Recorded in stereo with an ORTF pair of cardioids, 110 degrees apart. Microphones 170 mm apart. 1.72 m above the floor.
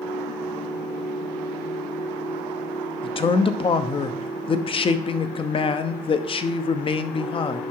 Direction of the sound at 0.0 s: 20° left.